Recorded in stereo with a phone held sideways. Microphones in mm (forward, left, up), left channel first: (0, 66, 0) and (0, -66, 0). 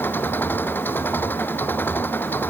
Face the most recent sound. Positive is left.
turn(degrees=15)  # may be behind; listen again after turning